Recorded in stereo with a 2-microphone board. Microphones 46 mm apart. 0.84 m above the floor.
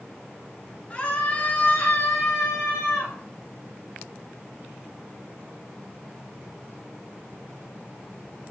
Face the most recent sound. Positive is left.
turn(degrees=65)  # may be behind; listen again after turning